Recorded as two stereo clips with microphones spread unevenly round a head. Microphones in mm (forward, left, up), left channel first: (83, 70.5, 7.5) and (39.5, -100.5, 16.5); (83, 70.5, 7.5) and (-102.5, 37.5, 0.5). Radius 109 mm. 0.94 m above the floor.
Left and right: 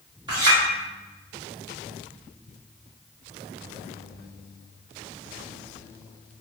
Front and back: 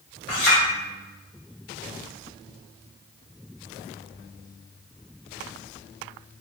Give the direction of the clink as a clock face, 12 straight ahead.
1 o'clock.